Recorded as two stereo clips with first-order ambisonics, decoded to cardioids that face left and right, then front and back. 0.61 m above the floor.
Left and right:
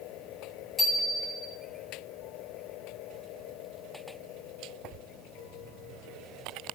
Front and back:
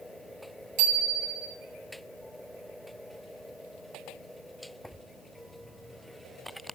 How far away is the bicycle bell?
About 7 m.